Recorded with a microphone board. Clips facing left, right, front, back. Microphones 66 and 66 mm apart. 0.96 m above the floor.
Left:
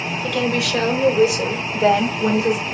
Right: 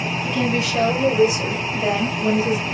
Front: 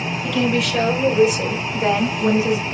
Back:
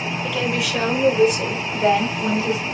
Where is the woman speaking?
95° left, 5.5 m; by 2.7 s 70° left, 4 m.